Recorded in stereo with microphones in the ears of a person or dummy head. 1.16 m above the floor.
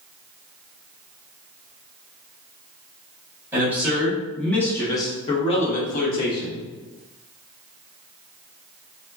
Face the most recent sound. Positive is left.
turn(degrees=60)  # may be behind; listen again after turning